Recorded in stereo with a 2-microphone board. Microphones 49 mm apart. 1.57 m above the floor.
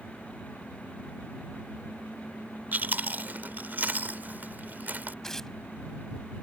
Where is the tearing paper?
10° left (ahead or behind).